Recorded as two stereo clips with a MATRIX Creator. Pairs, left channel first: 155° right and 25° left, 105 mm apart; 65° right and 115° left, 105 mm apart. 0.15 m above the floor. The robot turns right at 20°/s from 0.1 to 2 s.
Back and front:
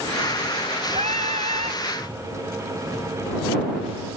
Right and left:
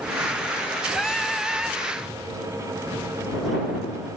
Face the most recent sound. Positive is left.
turn(degrees=35)